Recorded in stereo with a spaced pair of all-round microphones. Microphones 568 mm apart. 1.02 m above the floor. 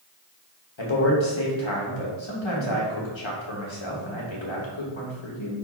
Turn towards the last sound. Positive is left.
turn(degrees=55)  # may be behind; listen again after turning